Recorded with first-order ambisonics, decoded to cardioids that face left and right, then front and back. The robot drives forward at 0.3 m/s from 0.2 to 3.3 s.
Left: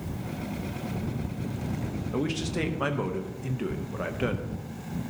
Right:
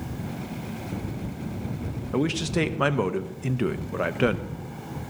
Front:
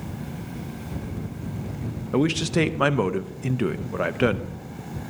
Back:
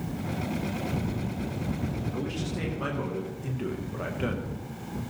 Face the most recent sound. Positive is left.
turn(degrees=-35)